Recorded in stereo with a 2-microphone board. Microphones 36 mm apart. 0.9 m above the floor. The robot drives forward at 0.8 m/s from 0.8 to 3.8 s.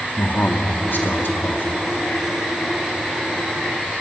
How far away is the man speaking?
About 1.9 m.